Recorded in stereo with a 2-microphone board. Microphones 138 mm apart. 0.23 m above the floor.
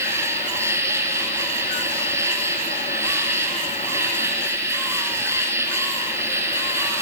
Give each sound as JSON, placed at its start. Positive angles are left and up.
{"t": 0.0, "sound": "an insect", "side_deg": -20, "distance_m": 3.5}